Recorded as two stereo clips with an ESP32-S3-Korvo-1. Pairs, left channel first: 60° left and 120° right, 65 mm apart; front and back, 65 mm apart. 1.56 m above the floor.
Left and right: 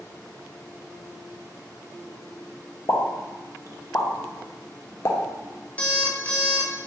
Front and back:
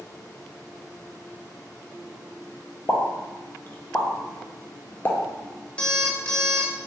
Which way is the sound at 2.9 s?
45° left.